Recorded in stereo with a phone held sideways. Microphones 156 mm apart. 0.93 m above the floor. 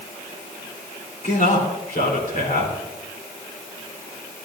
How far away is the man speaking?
About 3 m.